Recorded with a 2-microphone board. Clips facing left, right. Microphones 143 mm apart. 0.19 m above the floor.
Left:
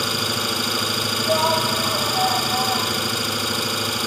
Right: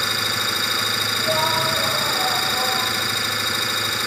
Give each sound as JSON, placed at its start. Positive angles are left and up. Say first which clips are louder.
{"t": 0.0, "sound": "an engine running", "louder": "left 3 dB", "side_deg": 15, "distance_m": 1.2}
{"t": 1.2, "sound": "a shout", "louder": "left 2 dB", "side_deg": -60, "distance_m": 4.0}